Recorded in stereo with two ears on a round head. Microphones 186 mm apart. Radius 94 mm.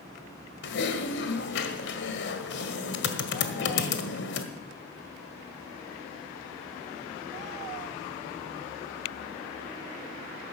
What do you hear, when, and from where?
0.6 s typing on a keyboard: 60° left (ahead or behind), 1.7 m